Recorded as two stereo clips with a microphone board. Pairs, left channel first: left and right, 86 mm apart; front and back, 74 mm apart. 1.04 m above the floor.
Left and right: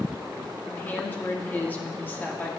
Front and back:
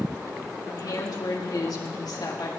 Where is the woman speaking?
20° left, 2.5 m.